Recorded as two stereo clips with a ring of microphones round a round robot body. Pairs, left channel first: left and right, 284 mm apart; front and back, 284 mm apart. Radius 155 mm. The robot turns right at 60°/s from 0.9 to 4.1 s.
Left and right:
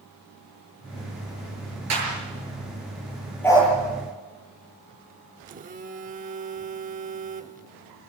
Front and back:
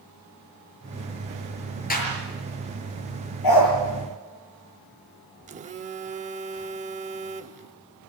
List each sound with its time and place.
1.9 s a clap: 60° right, 6.5 m; by 2.1 s 50° right, 6.5 m
3.4 s a dog barking: 5° left, 5.5 m; by 3.7 s 25° left, 5.5 m
5.5 s a phone buzzing: 135° right, 0.8 m